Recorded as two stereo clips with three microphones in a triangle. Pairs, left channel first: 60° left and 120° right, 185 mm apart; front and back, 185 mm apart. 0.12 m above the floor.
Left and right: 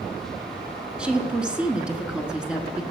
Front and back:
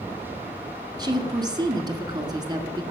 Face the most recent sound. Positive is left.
turn(degrees=165)